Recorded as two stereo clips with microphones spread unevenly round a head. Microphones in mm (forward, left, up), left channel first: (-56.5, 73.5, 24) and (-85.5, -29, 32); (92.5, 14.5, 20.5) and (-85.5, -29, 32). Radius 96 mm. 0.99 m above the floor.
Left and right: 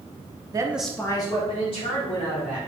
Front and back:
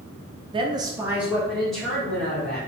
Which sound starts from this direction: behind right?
A woman speaking, at 0.5 s.